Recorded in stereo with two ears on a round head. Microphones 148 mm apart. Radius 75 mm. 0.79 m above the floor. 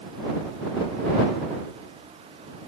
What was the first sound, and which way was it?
Only background noise.